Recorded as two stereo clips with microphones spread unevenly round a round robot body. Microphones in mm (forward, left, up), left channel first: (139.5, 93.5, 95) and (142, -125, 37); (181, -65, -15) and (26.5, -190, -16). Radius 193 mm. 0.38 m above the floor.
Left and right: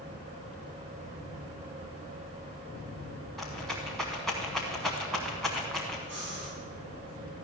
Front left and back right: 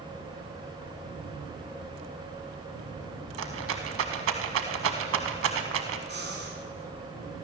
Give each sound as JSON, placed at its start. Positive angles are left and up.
{"t": 3.4, "sound": "a rattle", "azimuth_deg": 180, "distance_m": 0.5}
{"t": 6.1, "sound": "breathing", "azimuth_deg": -115, "distance_m": 4.0}